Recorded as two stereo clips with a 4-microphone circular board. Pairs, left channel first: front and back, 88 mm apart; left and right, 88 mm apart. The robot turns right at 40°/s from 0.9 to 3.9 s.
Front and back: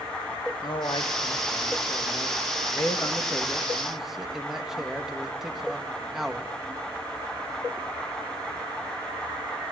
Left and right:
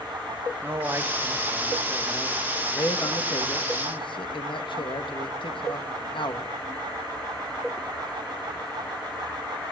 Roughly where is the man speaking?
Ahead right.